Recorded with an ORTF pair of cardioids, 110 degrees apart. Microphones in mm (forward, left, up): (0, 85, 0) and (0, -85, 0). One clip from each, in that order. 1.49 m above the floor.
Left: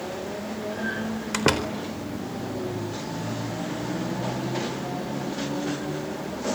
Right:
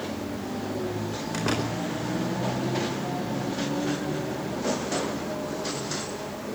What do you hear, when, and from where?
1.3 s a door slam: 55° left, 4 m